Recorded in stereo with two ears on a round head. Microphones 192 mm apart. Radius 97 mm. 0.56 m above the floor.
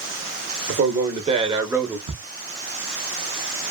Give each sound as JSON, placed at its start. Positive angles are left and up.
{"t": 0.7, "sound": "a man speaking", "side_deg": -45, "distance_m": 1.0}
{"t": 2.1, "sound": "ticking", "side_deg": -25, "distance_m": 0.7}